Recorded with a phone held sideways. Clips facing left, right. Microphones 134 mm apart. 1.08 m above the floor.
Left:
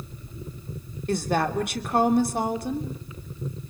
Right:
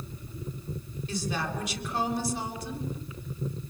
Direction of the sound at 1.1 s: 55° left (ahead or behind).